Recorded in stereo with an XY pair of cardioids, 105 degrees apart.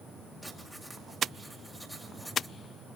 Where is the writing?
Straight ahead, 5.5 m.